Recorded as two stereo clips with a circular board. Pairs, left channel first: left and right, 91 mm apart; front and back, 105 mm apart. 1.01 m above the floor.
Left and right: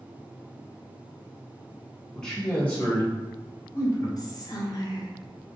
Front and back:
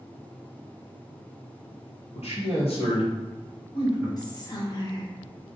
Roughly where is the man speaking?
Ahead.